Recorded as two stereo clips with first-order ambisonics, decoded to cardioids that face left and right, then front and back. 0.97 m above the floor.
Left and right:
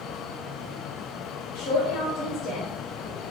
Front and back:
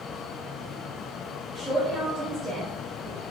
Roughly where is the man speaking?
Left.